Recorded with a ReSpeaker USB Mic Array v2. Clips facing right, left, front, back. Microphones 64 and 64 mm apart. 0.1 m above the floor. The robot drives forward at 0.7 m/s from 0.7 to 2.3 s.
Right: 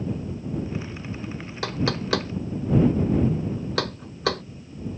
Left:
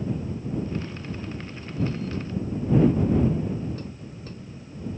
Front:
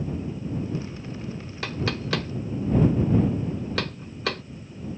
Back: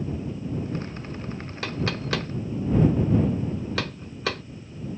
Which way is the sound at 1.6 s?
90° right.